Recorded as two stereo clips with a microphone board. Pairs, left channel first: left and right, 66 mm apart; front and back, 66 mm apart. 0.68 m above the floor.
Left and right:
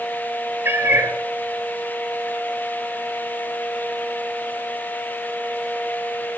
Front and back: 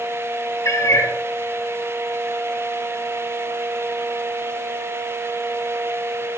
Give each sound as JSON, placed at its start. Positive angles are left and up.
{"t": 0.7, "sound": "a cat meowing", "azimuth_deg": -35, "distance_m": 1.7}